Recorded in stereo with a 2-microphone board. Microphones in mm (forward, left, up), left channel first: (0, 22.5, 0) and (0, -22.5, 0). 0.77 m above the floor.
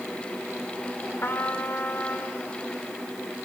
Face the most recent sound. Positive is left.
turn(degrees=55)  # may be behind; listen again after turning